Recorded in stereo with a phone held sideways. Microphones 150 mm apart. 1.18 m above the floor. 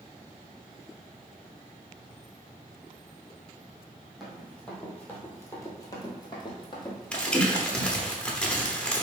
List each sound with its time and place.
4.2 s running footsteps: centre (ahead or behind), 1.9 m; by 8.1 s 30° left (ahead or behind), 2.5 m
7.1 s crumpling: 5° left (ahead or behind), 0.8 m